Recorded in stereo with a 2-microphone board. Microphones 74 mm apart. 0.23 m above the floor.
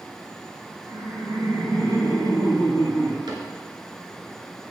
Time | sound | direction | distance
0.9 | laughter | 65° right (ahead or behind) | 3 m
3.3 | a cupboard door | 70° right (ahead or behind) | 1.3 m